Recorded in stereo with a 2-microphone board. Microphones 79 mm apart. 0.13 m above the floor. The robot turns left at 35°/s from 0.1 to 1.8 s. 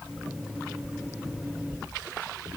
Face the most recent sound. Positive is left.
No sound to turn to.